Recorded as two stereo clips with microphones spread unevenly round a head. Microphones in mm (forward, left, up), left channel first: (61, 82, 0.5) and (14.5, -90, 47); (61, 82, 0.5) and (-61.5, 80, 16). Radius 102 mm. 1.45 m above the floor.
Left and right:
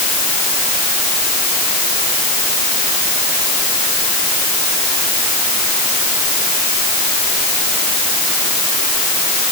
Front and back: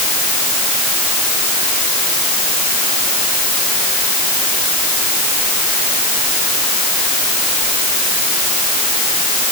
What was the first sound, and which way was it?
Only background noise.